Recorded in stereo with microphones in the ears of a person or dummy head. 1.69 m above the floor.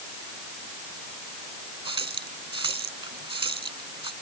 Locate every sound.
1.9 s a running tap: 25° right (ahead or behind)